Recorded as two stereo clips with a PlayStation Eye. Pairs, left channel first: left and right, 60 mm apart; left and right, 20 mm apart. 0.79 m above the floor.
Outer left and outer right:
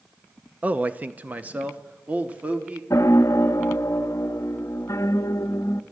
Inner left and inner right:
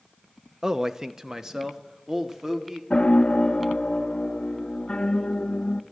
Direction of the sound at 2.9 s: 60° left (ahead or behind).